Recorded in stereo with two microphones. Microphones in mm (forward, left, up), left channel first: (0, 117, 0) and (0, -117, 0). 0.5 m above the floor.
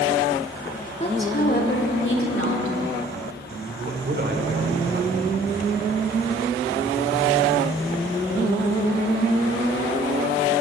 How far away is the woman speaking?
About 1.5 m.